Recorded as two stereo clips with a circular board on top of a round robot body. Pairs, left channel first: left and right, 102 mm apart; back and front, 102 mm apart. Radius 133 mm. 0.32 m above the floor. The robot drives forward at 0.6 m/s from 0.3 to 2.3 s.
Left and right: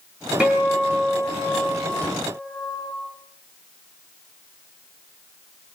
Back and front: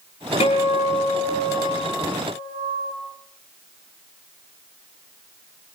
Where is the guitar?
170° right, 9.5 m.